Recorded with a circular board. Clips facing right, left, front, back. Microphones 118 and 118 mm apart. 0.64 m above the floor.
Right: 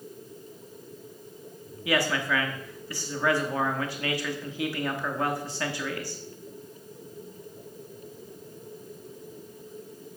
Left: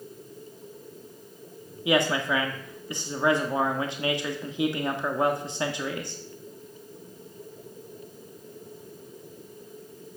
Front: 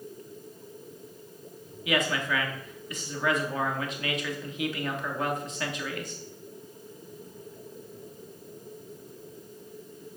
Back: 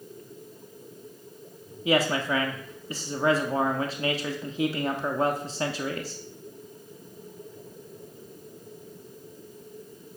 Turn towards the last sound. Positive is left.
turn(degrees=145)